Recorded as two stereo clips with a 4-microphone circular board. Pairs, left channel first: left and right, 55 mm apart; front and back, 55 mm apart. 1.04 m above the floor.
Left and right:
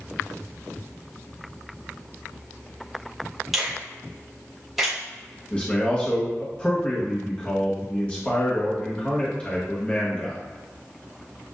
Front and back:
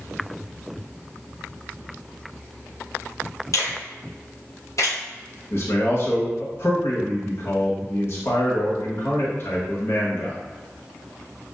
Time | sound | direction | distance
3.5 | a finger snap | 5° right | 1.3 m
5.5 | a man speaking | 25° left | 1.0 m